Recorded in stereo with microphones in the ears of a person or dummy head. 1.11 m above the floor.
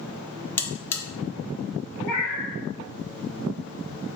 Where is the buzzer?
15° left (ahead or behind), 0.6 m.